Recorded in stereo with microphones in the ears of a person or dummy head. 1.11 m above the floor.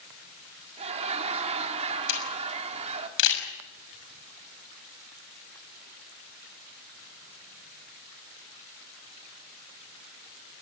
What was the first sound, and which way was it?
Laughter, 40° right (ahead or behind).